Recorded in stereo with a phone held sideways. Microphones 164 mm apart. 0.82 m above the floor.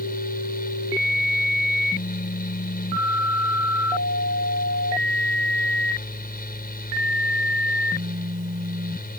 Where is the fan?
70° left (ahead or behind).